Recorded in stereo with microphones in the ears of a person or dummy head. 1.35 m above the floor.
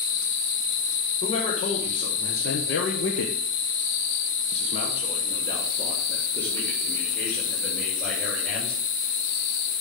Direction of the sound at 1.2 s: 30° left (ahead or behind).